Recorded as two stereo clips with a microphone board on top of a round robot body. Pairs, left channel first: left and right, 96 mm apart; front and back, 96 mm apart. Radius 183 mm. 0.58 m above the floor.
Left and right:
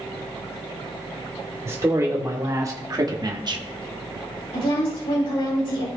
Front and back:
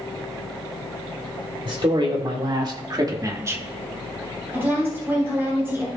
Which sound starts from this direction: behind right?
A man speaking, at 1.6 s.